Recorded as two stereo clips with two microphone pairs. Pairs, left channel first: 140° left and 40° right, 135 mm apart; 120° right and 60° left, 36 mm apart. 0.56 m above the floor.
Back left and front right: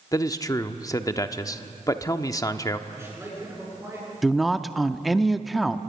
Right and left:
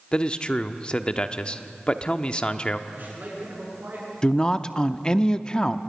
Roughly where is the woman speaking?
Behind right.